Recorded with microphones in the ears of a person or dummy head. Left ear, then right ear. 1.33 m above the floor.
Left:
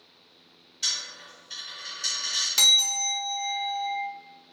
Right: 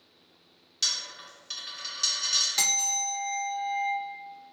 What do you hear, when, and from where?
0.8 s a dropped coin: 55° right (ahead or behind), 1.3 m
2.6 s a bell: 10° left (ahead or behind), 0.9 m